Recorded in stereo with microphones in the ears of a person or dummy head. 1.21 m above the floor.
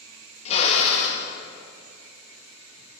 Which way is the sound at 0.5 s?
35° left (ahead or behind).